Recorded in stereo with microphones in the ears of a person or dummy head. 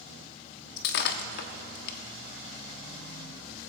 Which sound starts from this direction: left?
Breaking glass, at 0.8 s.